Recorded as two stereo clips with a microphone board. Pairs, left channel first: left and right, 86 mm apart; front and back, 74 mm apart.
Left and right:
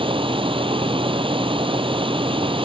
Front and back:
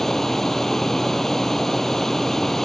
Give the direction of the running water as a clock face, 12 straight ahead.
3 o'clock.